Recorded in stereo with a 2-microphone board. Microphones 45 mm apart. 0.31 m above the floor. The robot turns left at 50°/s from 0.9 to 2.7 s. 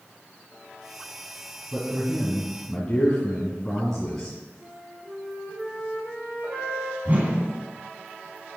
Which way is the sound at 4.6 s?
80° right.